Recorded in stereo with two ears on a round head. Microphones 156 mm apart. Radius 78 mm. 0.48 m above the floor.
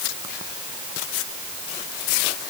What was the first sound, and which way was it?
Only background noise.